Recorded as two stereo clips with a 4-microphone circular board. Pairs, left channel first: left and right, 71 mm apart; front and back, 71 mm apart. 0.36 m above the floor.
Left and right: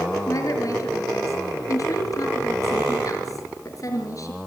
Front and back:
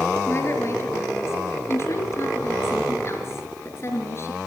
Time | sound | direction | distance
0.3 | a woman speaking | 50° left | 5.5 m